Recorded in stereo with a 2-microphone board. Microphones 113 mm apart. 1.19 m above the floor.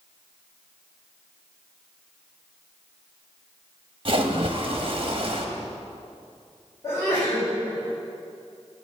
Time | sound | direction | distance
4.0 | a splash | 50° right (ahead or behind) | 1.0 m
6.8 | a sneeze | 30° left (ahead or behind) | 4.5 m